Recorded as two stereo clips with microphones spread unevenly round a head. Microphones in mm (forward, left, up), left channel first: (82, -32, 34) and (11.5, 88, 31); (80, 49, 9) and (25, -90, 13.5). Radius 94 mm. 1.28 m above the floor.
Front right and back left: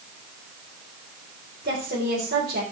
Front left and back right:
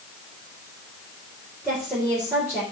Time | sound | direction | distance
1.6 | a woman speaking | 165° left | 4 m